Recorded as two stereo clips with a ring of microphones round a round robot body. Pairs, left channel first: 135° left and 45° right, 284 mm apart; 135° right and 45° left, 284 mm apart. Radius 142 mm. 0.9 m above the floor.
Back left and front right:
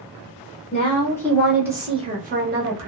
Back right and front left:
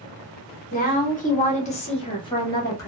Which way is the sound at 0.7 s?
175° right.